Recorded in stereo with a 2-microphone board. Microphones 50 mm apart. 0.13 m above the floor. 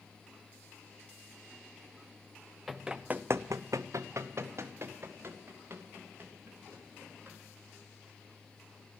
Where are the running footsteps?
5° right (ahead or behind), 0.9 m; by 7.4 s 35° right (ahead or behind), 4.5 m.